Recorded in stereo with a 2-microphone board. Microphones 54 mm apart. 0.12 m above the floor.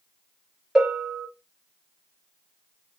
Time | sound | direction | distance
0.8 | a bell | 5° right (ahead or behind) | 1.8 m